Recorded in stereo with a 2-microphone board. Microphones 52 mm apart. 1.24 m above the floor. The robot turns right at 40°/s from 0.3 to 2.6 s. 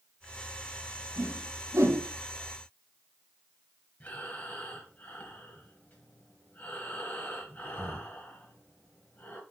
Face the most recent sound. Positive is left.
turn(degrees=30)  # may be behind; listen again after turning